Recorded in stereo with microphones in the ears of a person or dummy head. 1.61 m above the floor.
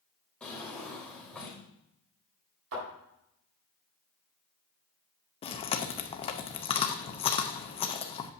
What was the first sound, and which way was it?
A drawer, 5° left (ahead or behind).